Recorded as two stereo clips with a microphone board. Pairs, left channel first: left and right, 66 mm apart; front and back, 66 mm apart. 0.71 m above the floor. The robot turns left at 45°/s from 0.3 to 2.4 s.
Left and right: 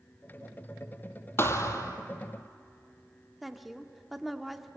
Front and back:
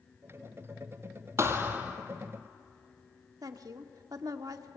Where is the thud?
140° left, 1.7 m; by 2.0 s 110° left, 1.7 m.